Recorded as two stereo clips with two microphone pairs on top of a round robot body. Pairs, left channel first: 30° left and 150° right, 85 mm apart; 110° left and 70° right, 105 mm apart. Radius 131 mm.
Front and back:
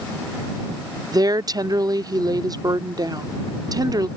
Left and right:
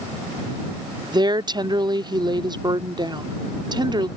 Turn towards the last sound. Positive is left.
turn(degrees=-115)